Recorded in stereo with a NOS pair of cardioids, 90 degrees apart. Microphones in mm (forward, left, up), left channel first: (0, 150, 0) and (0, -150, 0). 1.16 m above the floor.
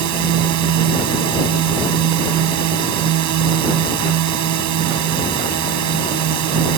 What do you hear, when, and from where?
0.0 s a drone: 70° right